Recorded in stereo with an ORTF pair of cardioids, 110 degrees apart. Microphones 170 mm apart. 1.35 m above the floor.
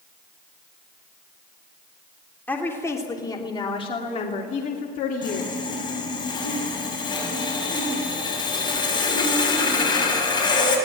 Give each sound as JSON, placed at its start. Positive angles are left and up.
{"t": 2.5, "sound": "a woman speaking", "azimuth_deg": 10, "distance_m": 3.5}
{"t": 5.2, "sound": "sawing", "azimuth_deg": 25, "distance_m": 7.0}